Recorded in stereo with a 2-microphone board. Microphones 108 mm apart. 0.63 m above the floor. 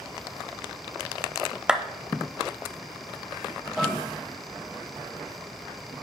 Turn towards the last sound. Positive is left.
turn(degrees=0)  # may be behind; listen again after turning